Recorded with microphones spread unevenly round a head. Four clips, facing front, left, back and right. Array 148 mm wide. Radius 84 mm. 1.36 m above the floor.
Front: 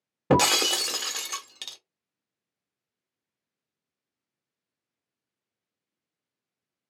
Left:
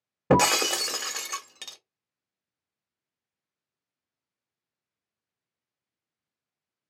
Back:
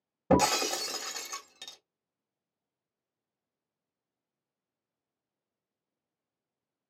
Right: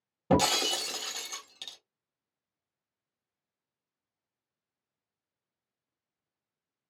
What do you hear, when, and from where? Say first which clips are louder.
0.3 s breaking glass: left 5 dB, front 3 dB; 40° left, 1.3 m